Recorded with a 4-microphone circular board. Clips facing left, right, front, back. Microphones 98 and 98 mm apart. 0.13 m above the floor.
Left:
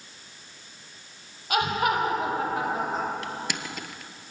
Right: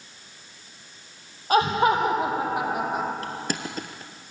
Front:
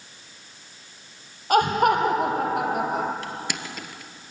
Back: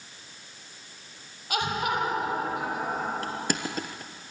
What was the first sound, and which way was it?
Laughter, 40° right.